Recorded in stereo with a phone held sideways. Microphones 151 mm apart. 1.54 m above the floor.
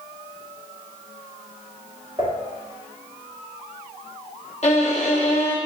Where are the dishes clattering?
25° right (ahead or behind), 1.7 m.